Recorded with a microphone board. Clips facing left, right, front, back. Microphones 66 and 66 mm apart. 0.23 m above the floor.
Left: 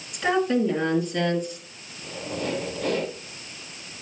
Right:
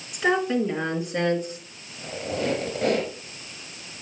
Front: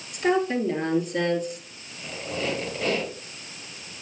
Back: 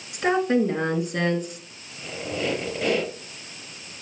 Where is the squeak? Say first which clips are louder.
Right 3 dB, back 2 dB; 110° right, 3 m.